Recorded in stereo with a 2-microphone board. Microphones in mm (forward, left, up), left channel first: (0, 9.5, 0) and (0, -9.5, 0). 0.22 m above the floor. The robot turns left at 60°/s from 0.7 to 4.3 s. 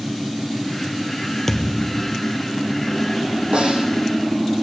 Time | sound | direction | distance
1.5 | a thud | 160° left | 1.5 m
3.5 | a snare drum | 80° right | 4 m